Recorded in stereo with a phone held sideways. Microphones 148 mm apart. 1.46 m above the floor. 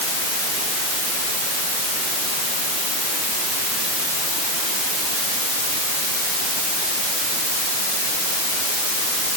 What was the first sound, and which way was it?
Only background noise.